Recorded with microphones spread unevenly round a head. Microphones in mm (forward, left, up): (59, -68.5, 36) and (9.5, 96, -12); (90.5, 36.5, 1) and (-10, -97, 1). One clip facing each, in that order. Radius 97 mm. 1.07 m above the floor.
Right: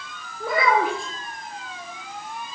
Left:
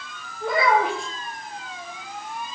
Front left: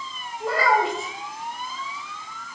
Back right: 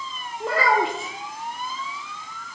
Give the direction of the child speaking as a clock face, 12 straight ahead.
3 o'clock.